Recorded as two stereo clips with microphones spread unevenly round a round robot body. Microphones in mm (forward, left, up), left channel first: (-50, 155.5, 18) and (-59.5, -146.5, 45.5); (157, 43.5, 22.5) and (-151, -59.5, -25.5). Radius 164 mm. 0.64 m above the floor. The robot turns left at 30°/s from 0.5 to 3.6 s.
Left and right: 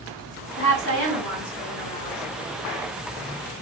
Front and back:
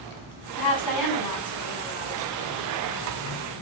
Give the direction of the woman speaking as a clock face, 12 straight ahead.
10 o'clock.